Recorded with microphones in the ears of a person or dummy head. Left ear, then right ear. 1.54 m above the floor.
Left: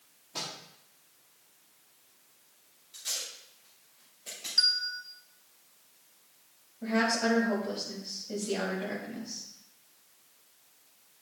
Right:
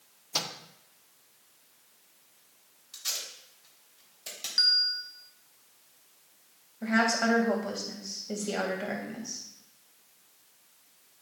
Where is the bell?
Centre (ahead or behind), 0.6 m.